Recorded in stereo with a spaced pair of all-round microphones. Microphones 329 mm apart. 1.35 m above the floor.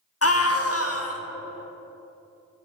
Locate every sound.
0.2 s a scream: 45° left (ahead or behind), 1.0 m